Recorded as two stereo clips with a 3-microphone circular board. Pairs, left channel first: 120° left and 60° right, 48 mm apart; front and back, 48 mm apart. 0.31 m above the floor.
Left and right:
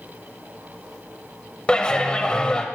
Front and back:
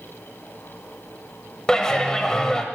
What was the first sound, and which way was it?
A clap, 65° left.